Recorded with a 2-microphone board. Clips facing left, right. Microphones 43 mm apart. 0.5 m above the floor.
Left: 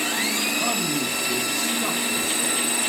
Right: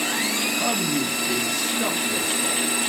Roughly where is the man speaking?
Right.